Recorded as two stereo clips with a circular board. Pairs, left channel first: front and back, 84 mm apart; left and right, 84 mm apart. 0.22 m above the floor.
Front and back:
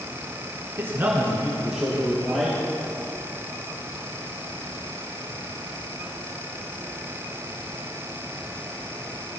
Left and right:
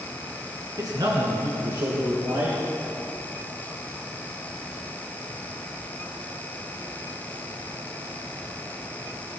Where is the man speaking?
125° right, 2 m; by 2.6 s 80° right, 4 m.